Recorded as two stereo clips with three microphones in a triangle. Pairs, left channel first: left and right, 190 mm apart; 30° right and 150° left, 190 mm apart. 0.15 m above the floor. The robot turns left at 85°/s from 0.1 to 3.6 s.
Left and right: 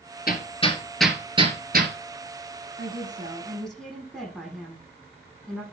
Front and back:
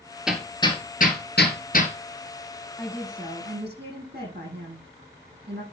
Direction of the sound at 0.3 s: 65° left.